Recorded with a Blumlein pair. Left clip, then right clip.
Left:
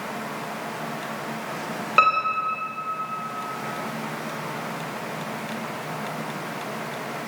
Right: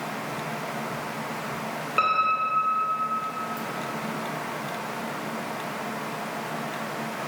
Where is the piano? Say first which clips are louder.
Left 3 dB; 20° left, 3.5 m.